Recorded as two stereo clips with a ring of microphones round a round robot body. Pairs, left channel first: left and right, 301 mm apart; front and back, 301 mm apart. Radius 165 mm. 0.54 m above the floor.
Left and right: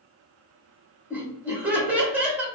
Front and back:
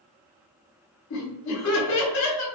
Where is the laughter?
5° right, 1.0 m.